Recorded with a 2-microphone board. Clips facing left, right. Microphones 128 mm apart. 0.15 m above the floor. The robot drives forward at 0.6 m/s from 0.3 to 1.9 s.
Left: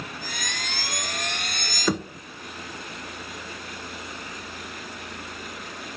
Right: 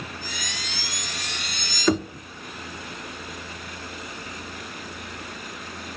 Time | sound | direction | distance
1.9 | knocking | 5° left (ahead or behind) | 1.3 m